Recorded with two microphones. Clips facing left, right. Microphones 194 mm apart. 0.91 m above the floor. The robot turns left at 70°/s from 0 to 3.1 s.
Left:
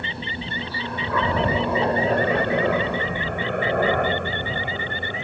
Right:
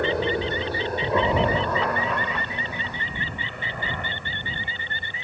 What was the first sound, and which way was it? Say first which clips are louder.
A helicopter: right 10 dB; 65° right (ahead or behind).